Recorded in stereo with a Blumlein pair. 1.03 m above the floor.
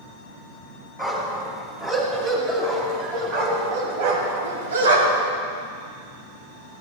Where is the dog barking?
5° right, 2.5 m; by 5.3 s 65° right, 1.9 m.